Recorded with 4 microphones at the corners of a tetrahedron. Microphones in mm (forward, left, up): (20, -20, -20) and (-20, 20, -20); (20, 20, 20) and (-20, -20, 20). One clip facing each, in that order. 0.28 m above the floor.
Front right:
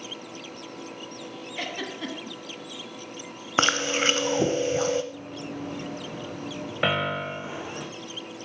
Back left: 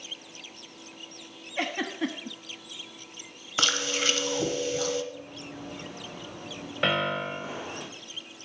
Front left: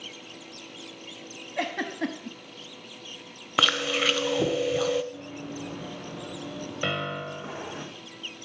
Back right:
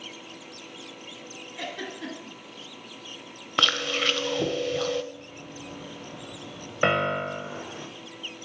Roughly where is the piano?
Behind right.